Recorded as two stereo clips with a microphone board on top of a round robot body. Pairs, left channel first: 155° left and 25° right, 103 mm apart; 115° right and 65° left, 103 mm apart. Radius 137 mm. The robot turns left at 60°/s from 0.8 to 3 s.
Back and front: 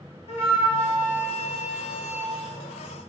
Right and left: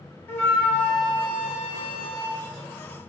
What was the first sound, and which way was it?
A flute, 175° left.